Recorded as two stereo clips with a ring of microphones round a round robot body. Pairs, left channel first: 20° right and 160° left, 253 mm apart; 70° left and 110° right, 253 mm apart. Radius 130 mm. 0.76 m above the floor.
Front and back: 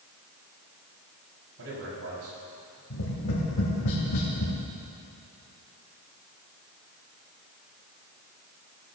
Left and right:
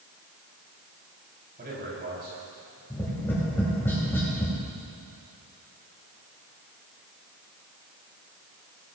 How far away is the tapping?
About 3 m.